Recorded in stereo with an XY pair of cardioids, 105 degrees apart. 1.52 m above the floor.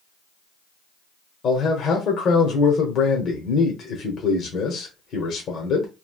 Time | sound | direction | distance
1.4 | a man speaking | 65° left | 1.0 m